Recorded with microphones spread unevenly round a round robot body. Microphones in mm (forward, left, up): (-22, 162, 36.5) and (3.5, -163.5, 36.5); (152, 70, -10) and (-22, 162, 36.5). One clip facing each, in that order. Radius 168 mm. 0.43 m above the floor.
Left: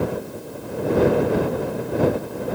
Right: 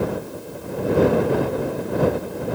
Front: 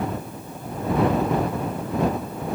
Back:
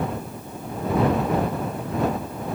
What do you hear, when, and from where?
Only background noise.